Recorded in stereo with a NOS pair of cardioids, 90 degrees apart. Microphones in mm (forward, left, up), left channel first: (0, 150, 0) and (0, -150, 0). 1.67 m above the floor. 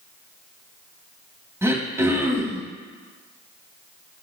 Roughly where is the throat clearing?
Ahead.